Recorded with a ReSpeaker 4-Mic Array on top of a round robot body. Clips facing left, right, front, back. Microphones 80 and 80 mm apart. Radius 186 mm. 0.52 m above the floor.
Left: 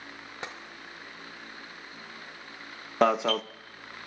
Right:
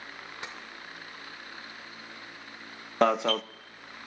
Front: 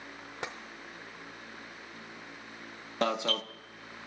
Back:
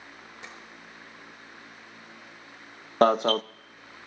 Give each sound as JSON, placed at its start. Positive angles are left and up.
{"t": 0.4, "sound": "tapping", "azimuth_deg": 30, "distance_m": 0.5}
{"t": 3.0, "sound": "an alarm", "azimuth_deg": 180, "distance_m": 0.6}